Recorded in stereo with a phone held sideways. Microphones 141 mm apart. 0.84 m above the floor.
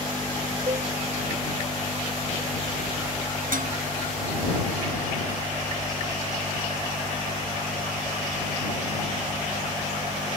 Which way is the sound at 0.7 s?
40° right (ahead or behind).